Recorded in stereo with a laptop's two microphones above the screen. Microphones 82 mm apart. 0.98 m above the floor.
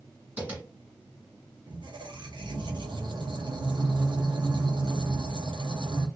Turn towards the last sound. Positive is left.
turn(degrees=-65)  # may be behind; listen again after turning